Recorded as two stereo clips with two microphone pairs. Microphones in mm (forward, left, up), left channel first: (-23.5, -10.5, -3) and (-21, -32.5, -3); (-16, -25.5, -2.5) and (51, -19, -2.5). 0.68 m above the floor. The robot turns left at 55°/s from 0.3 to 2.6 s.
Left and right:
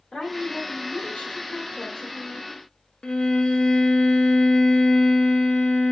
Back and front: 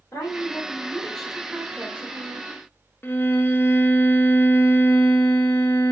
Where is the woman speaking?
150° left, 3 m; by 2.6 s 25° left, 3 m.